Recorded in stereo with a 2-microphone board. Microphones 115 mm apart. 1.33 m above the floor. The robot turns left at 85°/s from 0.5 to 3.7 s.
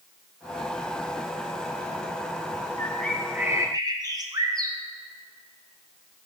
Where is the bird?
35° left, 0.7 m; by 4.8 s 45° right, 0.7 m.